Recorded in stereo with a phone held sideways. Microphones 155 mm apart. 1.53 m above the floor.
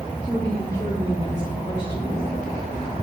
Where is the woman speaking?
Centre (ahead or behind), 2.5 m; by 2.2 s 50° left (ahead or behind), 3 m.